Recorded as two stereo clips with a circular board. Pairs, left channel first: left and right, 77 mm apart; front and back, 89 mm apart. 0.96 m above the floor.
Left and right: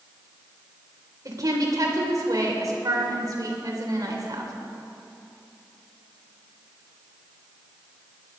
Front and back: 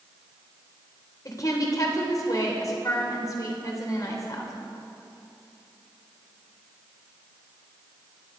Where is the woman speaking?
50° right, 3 m.